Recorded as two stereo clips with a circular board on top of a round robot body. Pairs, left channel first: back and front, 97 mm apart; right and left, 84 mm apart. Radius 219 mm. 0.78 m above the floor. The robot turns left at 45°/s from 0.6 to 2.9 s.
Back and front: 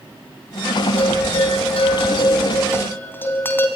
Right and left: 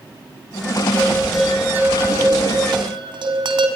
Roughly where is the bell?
Behind.